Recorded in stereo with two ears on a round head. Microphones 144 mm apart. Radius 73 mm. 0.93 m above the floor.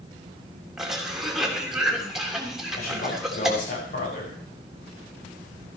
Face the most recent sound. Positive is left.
turn(degrees=55)  # may be behind; listen again after turning